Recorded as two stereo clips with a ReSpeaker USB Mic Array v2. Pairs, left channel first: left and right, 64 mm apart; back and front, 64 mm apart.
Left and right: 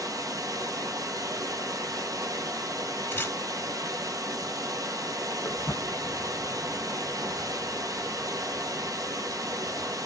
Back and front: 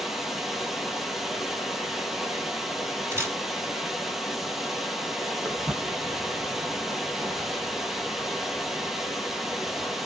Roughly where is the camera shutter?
Ahead left.